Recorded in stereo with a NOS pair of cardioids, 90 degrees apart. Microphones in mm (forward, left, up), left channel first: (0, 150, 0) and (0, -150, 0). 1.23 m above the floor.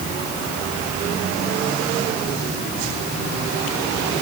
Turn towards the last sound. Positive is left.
No sound to turn to.